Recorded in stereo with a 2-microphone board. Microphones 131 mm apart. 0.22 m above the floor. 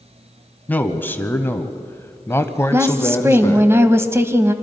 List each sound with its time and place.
0.7 s a man speaking: 15° left (ahead or behind), 1.4 m; by 3.7 s 20° left (ahead or behind), 1.6 m
2.7 s a woman speaking: 20° right (ahead or behind), 1.2 m